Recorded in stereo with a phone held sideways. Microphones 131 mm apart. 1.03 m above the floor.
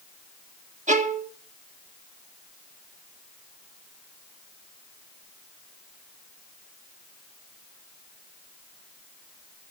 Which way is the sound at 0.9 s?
65° right (ahead or behind).